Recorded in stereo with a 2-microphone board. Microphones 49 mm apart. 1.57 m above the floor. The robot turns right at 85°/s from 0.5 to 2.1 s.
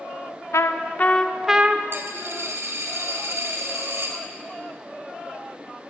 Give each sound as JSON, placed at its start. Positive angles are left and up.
{"t": 0.5, "sound": "a trumpet", "azimuth_deg": 105, "distance_m": 0.6}
{"t": 1.9, "sound": "a dropped coin", "side_deg": -50, "distance_m": 1.7}